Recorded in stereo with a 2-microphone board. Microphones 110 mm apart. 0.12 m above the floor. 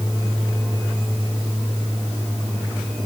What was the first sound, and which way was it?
Only background noise.